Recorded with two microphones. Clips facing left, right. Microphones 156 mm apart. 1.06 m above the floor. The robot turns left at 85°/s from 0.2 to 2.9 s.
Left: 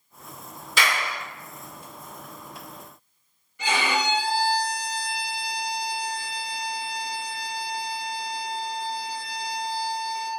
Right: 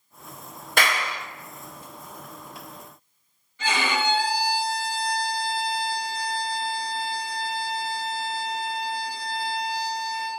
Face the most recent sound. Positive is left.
turn(degrees=15)  # may be behind; listen again after turning